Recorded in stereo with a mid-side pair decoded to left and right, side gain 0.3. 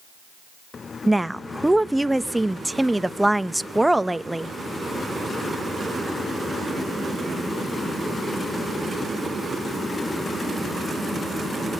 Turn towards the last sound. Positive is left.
turn(degrees=-10)